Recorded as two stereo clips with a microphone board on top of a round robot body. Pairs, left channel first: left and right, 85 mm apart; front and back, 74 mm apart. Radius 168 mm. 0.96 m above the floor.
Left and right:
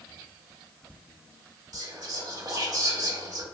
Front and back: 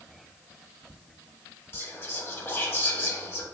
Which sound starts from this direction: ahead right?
Whispering, at 1.7 s.